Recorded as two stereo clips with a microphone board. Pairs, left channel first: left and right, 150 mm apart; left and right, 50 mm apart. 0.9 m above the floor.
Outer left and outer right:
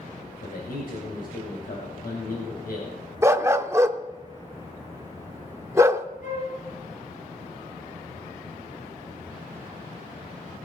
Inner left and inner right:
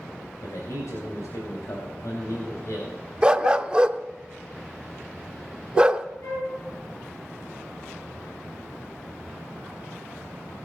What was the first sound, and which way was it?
A man speaking, 85° left.